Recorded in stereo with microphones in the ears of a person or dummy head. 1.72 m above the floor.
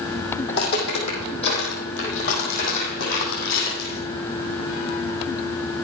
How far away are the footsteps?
About 4.5 m.